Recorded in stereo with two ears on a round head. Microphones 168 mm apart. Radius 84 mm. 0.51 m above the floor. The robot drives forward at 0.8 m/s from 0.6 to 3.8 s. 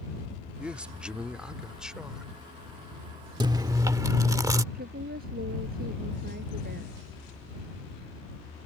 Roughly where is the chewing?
Right.